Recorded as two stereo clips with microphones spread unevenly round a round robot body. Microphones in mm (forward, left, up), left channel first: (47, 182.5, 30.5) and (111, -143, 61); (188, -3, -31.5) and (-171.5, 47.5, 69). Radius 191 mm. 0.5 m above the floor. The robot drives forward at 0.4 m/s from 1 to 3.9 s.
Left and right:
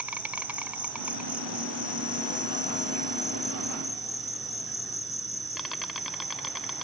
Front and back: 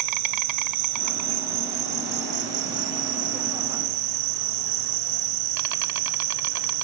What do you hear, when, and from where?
0.0 s an insect: 165° right; by 6.8 s 170° right